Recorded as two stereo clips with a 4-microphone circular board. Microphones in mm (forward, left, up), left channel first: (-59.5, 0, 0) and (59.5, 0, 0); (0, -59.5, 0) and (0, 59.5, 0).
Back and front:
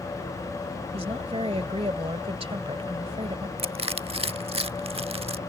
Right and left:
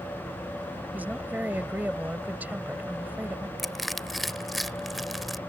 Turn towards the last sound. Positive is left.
turn(degrees=0)